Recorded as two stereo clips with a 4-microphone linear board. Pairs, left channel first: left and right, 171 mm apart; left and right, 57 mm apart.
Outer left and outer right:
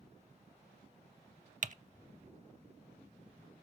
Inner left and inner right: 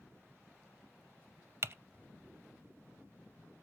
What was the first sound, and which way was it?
Typing on a keyboard, 50° right (ahead or behind).